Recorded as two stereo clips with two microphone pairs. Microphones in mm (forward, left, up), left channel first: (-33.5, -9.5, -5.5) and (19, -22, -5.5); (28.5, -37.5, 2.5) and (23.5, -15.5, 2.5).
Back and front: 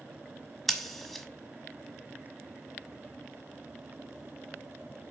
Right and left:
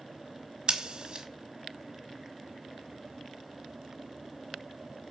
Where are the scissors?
75° left, 1.1 m.